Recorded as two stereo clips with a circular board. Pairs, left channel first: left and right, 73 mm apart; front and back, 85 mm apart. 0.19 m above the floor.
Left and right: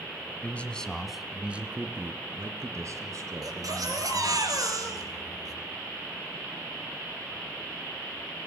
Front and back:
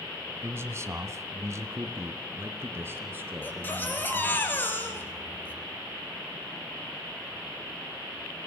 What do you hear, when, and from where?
0.4 s a man speaking: 145° left, 1.9 m; by 4.4 s 115° right, 4.5 m
3.4 s a baby crying: 65° right, 2.5 m